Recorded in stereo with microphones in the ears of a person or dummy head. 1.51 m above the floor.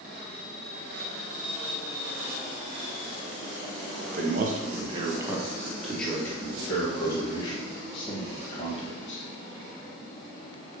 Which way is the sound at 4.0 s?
65° right (ahead or behind).